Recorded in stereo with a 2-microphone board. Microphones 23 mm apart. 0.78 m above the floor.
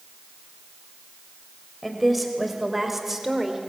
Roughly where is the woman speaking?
Centre.